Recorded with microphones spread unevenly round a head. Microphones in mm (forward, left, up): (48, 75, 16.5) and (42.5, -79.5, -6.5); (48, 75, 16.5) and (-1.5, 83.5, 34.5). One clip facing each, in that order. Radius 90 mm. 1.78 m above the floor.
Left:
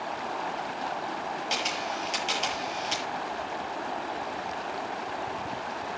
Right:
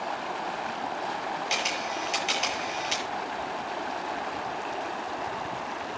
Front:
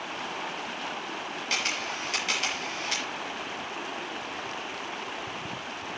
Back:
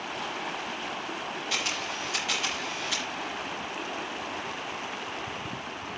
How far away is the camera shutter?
About 7 m.